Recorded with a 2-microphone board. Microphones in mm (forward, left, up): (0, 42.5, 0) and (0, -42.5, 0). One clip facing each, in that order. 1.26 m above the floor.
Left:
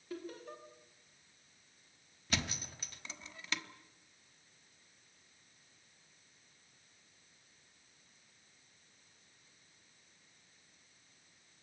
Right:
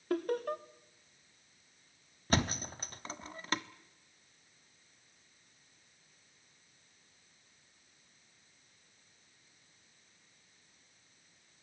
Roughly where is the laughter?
Right.